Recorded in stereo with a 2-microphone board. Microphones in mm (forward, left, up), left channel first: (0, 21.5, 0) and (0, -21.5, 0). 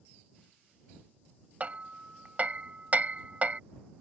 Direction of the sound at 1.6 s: 35° right (ahead or behind).